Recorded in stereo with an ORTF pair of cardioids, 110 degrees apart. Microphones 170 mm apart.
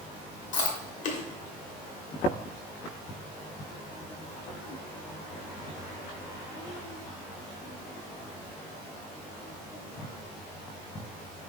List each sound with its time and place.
0.5 s chewing: 50° left, 1.1 m